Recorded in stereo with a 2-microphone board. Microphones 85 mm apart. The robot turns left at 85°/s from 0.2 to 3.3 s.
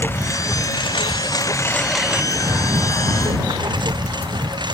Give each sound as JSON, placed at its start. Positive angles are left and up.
{"t": 0.0, "sound": "a lawn mower", "side_deg": 25}